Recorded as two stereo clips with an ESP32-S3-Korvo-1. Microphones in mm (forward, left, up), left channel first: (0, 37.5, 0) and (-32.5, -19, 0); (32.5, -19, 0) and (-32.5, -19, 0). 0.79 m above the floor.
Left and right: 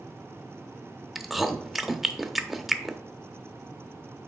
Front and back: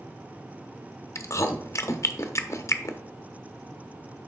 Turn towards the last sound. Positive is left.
turn(degrees=-30)